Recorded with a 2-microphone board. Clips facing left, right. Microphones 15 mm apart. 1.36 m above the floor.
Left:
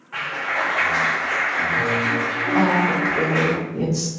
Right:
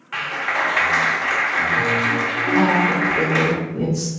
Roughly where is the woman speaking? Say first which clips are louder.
Right 1 dB; left.